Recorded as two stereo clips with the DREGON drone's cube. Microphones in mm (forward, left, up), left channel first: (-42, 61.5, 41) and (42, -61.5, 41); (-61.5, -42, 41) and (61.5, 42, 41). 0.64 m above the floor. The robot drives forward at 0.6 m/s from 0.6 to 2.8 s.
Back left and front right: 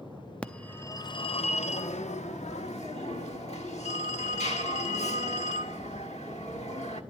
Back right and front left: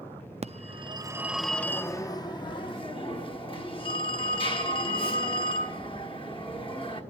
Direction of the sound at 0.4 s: 45° left.